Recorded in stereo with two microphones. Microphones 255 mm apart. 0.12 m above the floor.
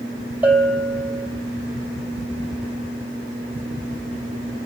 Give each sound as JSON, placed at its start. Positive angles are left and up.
{"t": 0.4, "sound": "a bell", "side_deg": -5, "distance_m": 2.5}